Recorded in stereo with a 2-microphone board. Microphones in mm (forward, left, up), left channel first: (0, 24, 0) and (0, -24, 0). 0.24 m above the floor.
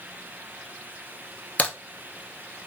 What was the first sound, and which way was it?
A crack, 30° left (ahead or behind).